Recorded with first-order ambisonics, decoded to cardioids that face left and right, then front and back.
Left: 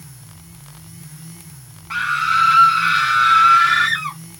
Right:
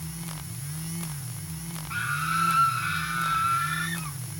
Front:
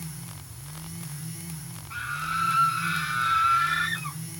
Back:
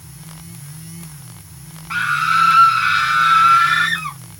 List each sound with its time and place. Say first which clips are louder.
1.9 s a scream: left 10 dB, back 14 dB; 145° left; by 4.2 s 125° left